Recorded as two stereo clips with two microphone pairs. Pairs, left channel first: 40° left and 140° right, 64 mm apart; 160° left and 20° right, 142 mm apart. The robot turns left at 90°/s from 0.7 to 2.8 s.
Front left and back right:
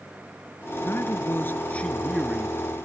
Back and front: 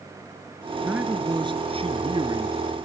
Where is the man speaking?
65° left, 1.7 m; by 2.6 s 90° right, 1.7 m.